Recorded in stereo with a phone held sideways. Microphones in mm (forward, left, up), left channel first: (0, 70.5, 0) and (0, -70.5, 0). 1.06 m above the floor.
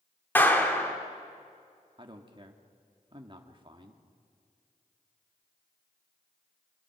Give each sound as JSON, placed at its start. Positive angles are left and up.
{"t": 0.3, "sound": "a clap", "side_deg": 15, "distance_m": 2.0}
{"t": 2.0, "sound": "a man speaking", "side_deg": -35, "distance_m": 1.9}